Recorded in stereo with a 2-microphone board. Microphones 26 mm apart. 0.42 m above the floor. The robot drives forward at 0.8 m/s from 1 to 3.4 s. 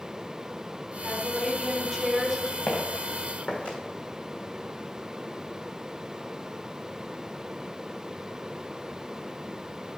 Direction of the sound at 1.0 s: Centre (ahead or behind).